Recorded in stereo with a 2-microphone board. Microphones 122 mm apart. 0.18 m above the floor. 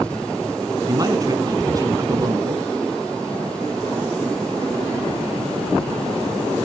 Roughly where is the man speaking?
Right.